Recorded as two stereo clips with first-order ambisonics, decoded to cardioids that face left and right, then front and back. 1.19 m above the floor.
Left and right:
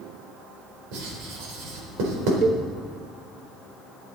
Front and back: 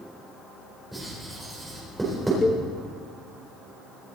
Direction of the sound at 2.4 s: 70° right.